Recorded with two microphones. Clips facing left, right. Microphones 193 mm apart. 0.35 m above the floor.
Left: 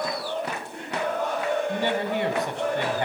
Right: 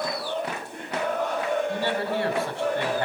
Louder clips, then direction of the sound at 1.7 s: Left 1 dB; 20° left (ahead or behind).